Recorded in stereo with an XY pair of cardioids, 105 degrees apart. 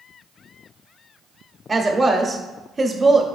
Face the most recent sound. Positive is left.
turn(degrees=-25)